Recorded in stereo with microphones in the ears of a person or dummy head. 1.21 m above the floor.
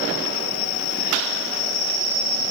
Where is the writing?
I don't hear writing.